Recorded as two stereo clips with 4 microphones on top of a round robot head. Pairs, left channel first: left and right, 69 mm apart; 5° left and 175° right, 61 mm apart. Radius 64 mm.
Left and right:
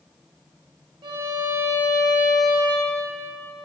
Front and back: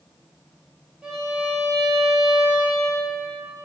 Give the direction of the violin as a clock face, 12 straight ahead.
3 o'clock.